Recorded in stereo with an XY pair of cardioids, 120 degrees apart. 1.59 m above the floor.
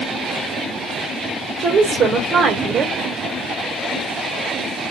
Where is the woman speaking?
40° right, 1.0 m.